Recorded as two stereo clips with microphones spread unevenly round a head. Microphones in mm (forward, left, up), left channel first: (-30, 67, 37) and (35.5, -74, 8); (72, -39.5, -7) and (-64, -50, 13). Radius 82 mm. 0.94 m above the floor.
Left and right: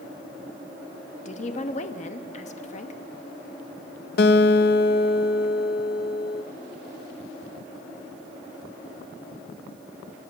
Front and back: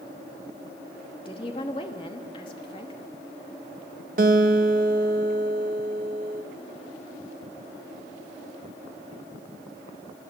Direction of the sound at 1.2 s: 65° left.